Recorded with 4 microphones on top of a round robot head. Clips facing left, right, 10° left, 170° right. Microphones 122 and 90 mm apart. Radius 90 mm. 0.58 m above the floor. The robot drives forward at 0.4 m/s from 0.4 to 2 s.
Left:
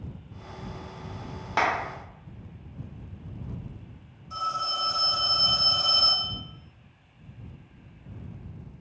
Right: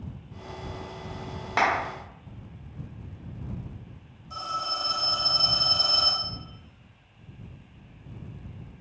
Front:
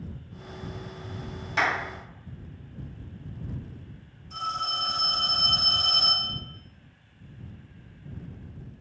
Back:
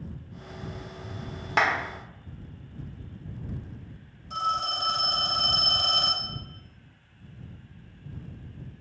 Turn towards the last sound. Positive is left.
turn(degrees=180)